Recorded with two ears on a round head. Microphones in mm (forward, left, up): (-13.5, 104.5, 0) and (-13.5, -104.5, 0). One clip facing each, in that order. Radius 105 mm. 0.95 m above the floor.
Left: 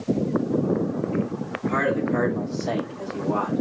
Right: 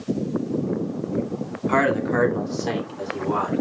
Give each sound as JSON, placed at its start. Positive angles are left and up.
{"t": 1.7, "sound": "a man speaking", "side_deg": -75, "distance_m": 2.5}